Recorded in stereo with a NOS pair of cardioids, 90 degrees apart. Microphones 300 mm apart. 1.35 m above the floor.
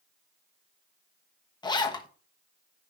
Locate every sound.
1.6 s a zipper: 15° left, 1.2 m